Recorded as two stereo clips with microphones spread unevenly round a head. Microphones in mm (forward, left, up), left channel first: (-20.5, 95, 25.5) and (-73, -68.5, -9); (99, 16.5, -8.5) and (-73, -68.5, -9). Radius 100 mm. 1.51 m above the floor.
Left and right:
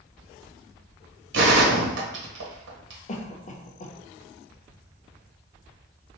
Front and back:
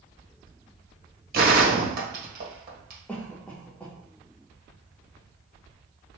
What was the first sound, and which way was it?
A gunshot, 110° right.